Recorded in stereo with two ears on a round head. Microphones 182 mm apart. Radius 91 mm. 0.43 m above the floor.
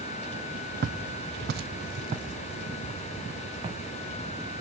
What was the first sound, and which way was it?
Footsteps, 45° right (ahead or behind).